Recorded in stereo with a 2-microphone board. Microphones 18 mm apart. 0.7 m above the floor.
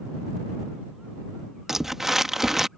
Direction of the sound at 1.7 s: 25° right (ahead or behind).